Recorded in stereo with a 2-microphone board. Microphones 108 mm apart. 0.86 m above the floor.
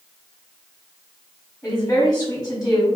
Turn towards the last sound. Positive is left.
turn(degrees=30)  # may be behind; listen again after turning